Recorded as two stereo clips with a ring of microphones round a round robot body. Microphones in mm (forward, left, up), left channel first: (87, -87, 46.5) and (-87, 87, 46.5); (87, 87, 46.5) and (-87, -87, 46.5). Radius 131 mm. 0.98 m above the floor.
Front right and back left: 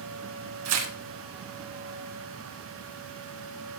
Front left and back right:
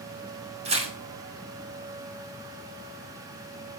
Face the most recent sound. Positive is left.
turn(degrees=160)